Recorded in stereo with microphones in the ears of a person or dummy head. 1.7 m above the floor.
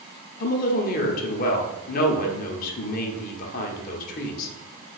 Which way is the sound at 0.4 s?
50° left (ahead or behind).